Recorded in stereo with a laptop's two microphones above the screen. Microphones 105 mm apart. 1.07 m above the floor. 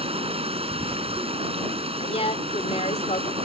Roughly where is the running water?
Right.